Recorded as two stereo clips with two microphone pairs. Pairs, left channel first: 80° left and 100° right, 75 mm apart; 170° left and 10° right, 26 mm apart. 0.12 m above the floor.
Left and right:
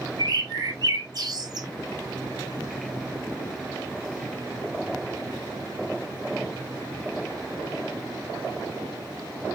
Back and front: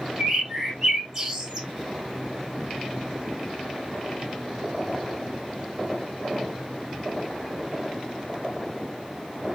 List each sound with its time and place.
0.2 s a bird: 75° right, 1.5 m